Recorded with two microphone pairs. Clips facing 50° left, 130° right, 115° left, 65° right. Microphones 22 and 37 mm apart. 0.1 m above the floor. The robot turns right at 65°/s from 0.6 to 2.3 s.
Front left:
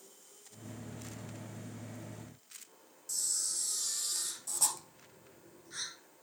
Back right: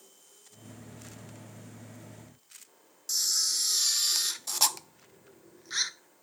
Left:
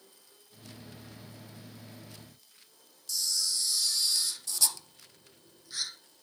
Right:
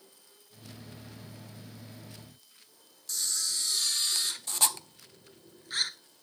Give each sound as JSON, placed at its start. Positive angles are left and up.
{"t": 3.1, "sound": "a camera shutter", "azimuth_deg": -105, "distance_m": 0.5}